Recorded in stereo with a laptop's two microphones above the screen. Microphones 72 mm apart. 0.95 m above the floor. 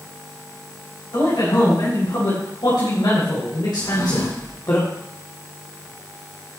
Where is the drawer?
60° left (ahead or behind), 5 m.